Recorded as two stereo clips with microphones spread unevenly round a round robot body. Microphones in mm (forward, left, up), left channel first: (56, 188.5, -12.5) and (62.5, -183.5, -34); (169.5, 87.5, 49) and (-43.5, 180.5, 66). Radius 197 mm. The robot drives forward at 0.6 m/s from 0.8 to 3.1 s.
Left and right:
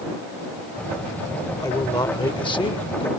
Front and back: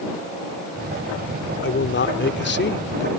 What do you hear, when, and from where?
1.6 s a man speaking: 10° left; by 3.1 s 15° left